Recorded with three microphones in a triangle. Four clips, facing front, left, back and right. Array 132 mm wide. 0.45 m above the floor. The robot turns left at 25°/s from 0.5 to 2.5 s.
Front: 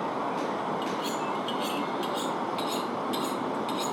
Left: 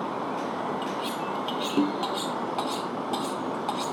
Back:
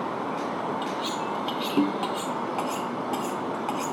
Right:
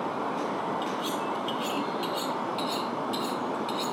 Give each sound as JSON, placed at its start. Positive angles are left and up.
{"t": 0.8, "sound": "cutlery clinking", "azimuth_deg": 165}